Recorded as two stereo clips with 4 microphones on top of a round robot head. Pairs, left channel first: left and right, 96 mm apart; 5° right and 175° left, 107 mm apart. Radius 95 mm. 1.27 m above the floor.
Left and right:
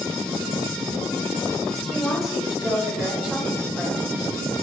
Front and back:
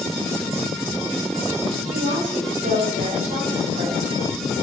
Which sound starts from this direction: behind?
A woman speaking, at 1.8 s.